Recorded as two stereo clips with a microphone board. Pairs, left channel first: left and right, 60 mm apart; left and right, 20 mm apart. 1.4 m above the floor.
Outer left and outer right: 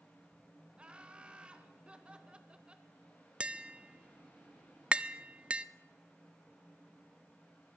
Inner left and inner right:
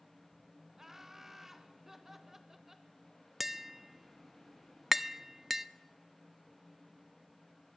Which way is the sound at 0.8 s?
20° right (ahead or behind).